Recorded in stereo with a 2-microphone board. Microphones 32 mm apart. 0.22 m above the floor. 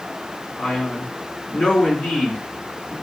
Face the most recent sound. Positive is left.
turn(degrees=60)  # may be behind; listen again after turning